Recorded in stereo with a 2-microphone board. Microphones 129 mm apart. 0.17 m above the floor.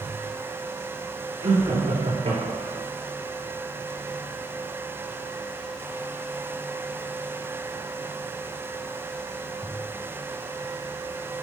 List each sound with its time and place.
1.4 s laughter: 65° right (ahead or behind), 3 m; by 2.8 s 60° right (ahead or behind), 2.5 m